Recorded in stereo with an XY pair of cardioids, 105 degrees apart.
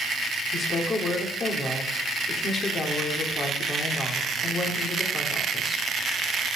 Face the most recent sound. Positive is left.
turn(degrees=50)